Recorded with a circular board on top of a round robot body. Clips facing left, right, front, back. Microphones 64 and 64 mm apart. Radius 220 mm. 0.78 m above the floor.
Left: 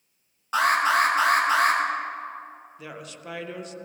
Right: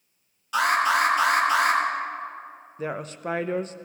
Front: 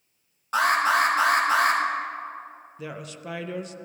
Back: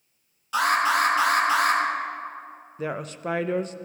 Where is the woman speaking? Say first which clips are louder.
Right 10 dB, back 7 dB; 135° right, 0.7 m.